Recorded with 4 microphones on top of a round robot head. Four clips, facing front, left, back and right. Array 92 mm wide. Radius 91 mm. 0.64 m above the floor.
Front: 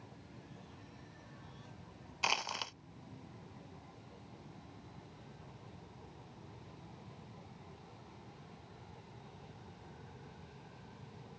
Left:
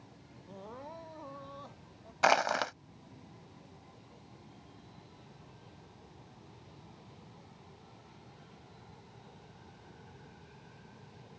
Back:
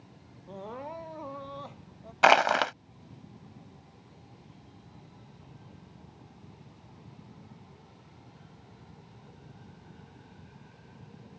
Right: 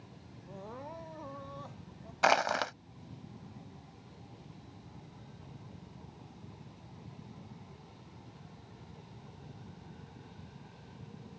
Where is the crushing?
Straight behind.